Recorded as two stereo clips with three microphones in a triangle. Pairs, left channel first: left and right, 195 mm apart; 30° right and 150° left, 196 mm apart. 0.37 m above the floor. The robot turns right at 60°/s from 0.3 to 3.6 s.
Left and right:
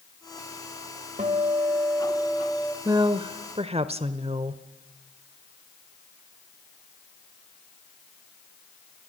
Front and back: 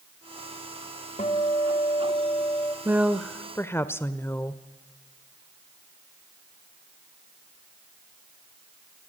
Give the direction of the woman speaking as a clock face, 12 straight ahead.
5 o'clock.